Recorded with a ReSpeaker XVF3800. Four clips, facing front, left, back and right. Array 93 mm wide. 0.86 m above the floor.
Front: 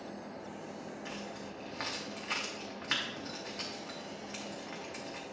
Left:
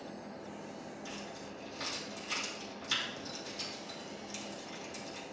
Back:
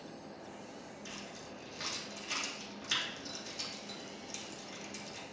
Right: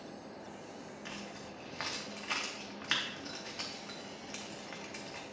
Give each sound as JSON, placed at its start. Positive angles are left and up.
{"t": 1.1, "sound": "keys jangling", "azimuth_deg": -50, "distance_m": 1.0}